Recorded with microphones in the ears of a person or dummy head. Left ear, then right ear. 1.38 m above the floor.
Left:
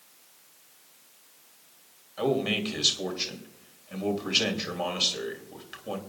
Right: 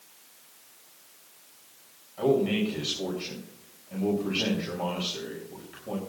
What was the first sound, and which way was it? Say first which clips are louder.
A man speaking: right 2 dB; 50° left (ahead or behind).